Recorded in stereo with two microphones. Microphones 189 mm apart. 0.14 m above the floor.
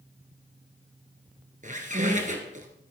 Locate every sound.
1.6 s a squeak: 45° right (ahead or behind), 1.7 m